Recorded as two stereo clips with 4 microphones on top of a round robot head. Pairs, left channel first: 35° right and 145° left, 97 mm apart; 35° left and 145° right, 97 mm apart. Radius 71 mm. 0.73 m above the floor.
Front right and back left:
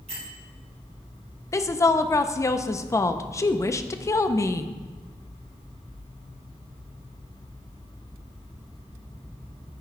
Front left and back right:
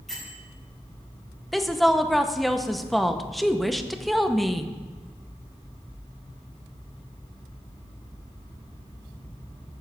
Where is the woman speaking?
55° right, 0.6 m.